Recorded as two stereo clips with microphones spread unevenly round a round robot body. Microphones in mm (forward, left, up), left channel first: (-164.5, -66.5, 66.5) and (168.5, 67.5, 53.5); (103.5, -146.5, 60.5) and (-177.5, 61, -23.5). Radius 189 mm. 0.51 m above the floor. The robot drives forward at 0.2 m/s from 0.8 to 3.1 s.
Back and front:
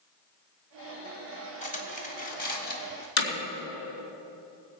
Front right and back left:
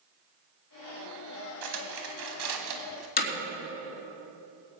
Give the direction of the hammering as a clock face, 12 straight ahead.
3 o'clock.